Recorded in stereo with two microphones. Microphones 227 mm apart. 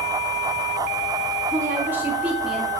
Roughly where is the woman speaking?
Centre.